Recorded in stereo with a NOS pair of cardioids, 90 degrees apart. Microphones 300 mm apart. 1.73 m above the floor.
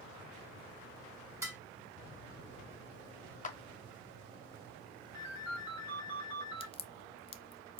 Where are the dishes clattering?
10° right, 2.5 m.